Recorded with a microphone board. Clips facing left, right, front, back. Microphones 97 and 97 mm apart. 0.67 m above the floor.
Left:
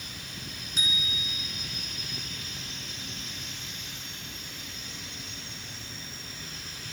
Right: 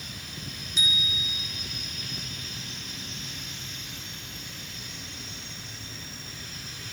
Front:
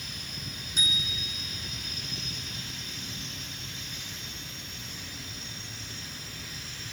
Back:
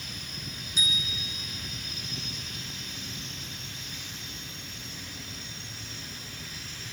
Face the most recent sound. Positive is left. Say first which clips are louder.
# right 2 dB, even
turn(degrees=45)